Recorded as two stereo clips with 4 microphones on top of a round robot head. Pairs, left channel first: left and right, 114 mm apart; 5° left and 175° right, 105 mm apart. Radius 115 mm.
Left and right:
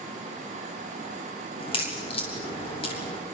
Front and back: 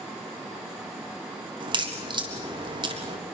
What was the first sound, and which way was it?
A crack, 140° left.